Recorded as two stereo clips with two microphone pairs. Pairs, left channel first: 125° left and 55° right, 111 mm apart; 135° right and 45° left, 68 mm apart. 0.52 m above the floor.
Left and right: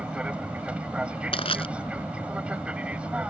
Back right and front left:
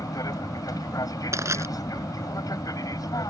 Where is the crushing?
90° left.